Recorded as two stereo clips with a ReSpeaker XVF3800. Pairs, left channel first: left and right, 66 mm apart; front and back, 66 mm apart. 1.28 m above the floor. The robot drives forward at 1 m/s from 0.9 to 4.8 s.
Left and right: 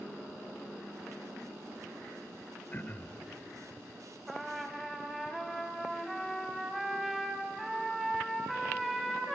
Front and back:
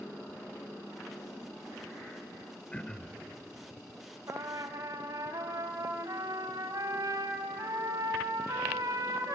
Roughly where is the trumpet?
Behind.